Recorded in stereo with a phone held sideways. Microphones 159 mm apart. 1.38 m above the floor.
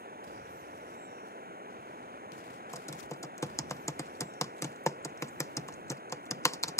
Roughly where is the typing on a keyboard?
Centre.